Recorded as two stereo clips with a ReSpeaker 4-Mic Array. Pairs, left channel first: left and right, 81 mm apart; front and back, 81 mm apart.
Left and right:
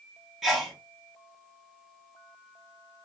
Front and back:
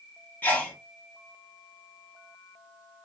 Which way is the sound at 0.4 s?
15° right.